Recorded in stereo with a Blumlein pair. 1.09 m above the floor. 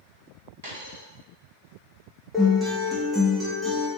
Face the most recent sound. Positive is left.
turn(degrees=-5)